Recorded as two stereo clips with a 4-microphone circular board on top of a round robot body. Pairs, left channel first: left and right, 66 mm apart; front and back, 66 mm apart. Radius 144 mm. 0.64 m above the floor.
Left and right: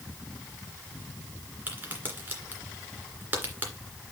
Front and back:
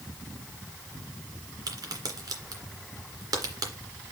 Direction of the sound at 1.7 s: 155° right.